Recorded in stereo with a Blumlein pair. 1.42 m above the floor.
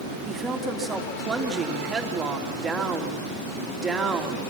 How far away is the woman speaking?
About 3 m.